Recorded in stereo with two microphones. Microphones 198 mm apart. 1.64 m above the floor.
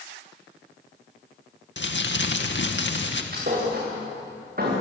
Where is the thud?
50° right (ahead or behind), 9.5 m.